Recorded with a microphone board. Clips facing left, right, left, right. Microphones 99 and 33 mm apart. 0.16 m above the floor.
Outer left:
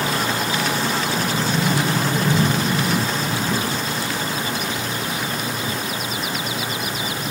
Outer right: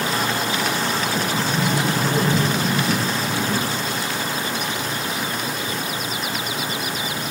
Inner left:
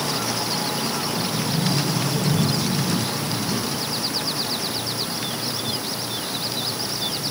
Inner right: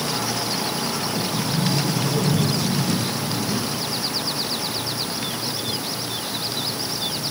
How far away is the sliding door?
About 2.5 m.